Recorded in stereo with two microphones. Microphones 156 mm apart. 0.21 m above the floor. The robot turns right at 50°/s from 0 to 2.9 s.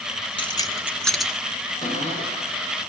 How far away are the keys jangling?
About 1.7 m.